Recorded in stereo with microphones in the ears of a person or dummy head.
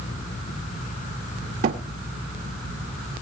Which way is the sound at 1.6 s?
35° right (ahead or behind).